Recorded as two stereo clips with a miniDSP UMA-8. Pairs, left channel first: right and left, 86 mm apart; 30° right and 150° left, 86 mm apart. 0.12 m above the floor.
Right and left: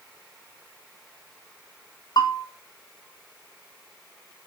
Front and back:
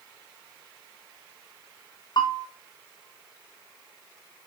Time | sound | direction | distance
2.2 | a bell | 55° right | 1.0 m